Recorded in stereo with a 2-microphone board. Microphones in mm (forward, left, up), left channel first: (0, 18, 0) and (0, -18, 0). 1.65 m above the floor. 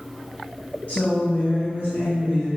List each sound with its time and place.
0.9 s a woman speaking: 40° left (ahead or behind), 0.6 m; by 2.5 s 65° left (ahead or behind), 1.1 m